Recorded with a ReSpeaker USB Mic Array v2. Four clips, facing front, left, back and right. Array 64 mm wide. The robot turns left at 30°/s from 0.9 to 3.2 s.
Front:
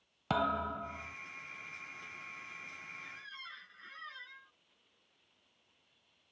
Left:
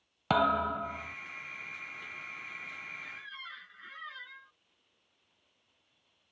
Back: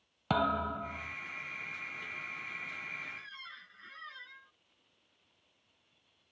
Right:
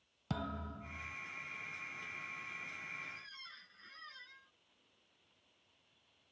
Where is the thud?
95° left; by 1.2 s 90° left.